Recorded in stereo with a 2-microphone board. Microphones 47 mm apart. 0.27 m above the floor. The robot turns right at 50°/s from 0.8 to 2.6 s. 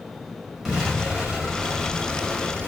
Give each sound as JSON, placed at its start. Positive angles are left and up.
{"t": 0.7, "sound": "an explosion", "side_deg": -5, "distance_m": 1.1}